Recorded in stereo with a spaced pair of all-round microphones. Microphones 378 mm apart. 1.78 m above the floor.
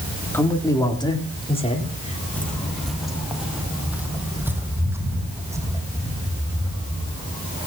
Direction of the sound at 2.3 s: 5° left (ahead or behind).